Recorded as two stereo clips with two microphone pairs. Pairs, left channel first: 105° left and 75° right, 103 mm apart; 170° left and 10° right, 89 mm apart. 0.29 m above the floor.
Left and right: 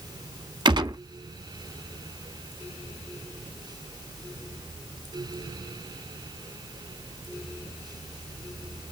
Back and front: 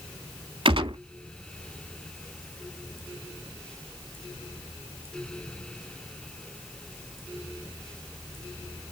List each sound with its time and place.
0.7 s a gunshot: 30° right, 0.8 m